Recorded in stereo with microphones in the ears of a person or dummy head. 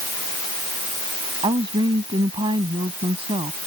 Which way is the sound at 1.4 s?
25° right (ahead or behind).